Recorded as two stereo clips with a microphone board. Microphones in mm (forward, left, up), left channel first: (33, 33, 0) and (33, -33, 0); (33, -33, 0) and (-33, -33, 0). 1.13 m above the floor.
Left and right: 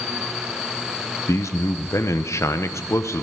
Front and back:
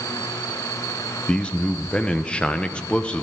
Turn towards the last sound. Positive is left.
turn(degrees=65)